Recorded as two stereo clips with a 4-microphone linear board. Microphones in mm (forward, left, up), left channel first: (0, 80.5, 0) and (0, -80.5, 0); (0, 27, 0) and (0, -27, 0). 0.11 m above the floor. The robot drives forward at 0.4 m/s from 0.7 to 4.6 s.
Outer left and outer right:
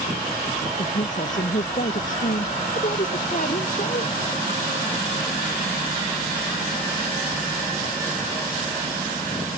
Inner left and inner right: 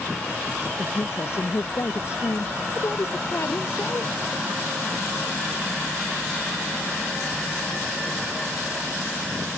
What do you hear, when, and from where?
0.8 s a woman speaking: 50° left (ahead or behind); by 4.2 s 55° left (ahead or behind)